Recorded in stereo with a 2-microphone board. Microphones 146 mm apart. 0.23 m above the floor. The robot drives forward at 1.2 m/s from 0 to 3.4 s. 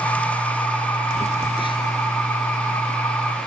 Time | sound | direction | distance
1.2 | a phone buzzing | 50° left (ahead or behind) | ?